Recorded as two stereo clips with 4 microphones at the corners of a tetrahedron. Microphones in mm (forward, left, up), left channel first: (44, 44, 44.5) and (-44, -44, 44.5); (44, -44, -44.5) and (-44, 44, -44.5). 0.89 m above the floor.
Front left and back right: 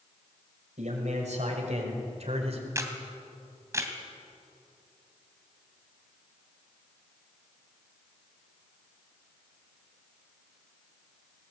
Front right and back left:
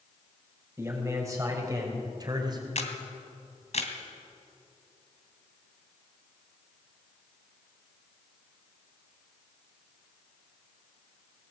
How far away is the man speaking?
About 6 m.